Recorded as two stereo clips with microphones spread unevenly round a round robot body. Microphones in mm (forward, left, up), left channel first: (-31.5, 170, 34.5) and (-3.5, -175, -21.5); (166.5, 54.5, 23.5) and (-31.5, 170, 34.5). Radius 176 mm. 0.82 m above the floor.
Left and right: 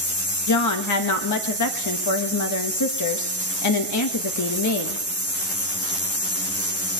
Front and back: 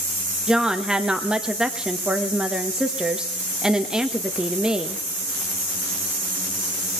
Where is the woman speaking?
60° left, 1.3 m.